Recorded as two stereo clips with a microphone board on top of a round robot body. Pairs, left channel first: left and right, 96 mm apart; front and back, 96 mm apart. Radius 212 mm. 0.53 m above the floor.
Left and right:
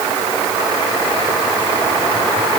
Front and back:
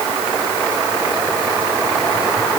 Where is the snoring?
I don't hear snoring.